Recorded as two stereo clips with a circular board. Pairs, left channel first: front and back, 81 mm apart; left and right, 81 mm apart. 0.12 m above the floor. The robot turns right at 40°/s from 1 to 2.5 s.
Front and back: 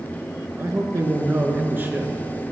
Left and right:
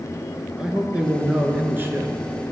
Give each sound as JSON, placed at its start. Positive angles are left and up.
{"t": 0.6, "sound": "a man speaking", "azimuth_deg": -165, "distance_m": 1.4}